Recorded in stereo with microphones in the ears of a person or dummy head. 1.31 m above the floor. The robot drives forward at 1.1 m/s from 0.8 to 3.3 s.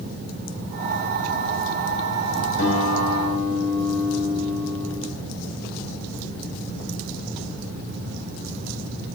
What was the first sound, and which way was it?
A guitar, 70° left (ahead or behind).